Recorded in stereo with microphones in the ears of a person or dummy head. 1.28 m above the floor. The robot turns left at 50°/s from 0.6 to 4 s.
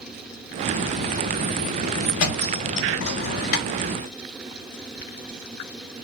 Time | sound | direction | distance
2.2 | a thud | 40° left (ahead or behind) | 1.3 m